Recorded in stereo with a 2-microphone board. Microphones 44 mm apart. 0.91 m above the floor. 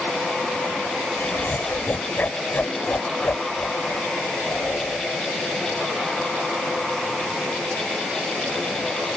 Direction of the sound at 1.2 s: 45° left (ahead or behind).